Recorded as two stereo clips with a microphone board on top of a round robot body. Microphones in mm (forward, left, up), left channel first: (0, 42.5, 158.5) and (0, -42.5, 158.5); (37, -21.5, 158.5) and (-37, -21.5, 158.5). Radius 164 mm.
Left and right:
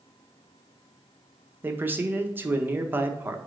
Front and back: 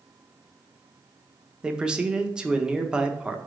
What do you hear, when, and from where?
1.6 s a man speaking: 115° right, 0.9 m